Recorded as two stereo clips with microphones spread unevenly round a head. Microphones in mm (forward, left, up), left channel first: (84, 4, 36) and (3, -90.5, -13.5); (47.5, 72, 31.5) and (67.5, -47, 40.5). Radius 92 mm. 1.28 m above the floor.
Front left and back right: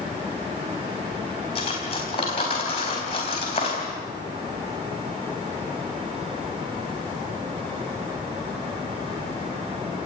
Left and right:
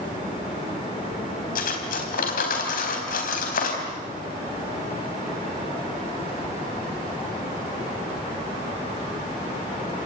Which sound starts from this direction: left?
Cutlery clinking, at 1.6 s.